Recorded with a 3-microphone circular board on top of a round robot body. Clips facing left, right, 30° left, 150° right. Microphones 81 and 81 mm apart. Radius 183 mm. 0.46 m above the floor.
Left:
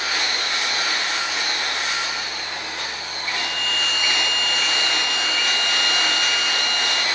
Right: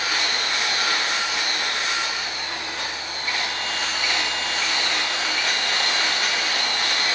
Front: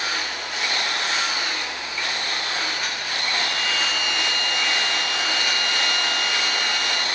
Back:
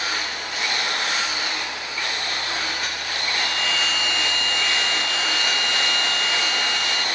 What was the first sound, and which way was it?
A violin, 115° left.